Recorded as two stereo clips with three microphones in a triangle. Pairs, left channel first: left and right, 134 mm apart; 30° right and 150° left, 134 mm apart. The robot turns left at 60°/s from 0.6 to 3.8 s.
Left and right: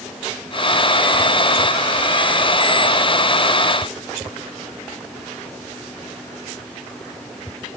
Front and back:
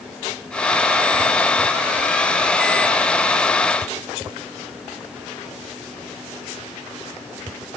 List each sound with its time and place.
Only background noise.